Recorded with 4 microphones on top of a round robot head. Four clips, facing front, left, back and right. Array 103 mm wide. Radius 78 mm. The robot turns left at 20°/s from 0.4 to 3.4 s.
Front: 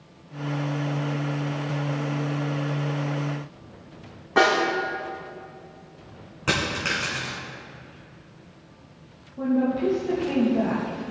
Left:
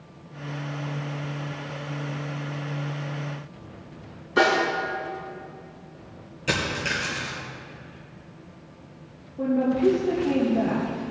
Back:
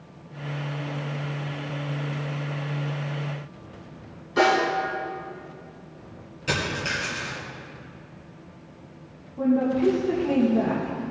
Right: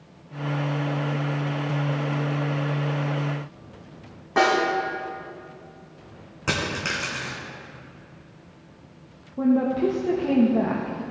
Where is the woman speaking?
95° right, 2.0 m.